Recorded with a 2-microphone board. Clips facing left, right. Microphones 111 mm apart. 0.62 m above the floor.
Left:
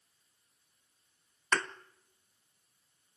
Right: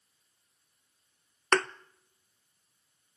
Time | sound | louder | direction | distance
1.5 | a thud | right 6 dB | 75° right (ahead or behind) | 0.6 m